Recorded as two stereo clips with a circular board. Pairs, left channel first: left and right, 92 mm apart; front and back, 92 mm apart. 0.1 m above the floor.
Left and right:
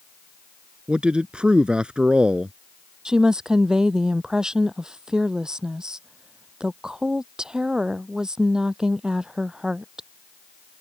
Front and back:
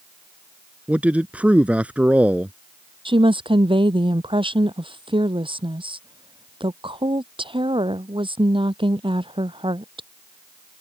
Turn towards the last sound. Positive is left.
turn(degrees=-170)